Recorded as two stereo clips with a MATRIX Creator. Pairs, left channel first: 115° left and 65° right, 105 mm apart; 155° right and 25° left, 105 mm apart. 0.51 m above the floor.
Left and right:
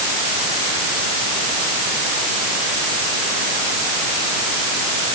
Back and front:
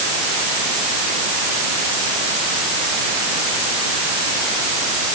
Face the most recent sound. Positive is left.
No sound to turn to.